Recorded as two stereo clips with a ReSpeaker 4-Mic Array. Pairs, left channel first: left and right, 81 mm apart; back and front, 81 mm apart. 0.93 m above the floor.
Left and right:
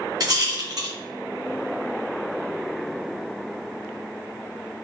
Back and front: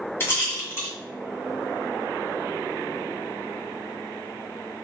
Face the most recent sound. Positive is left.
turn(degrees=-120)